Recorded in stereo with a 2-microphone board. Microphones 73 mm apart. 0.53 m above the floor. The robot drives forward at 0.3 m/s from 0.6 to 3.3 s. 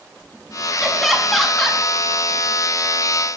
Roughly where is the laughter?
Centre.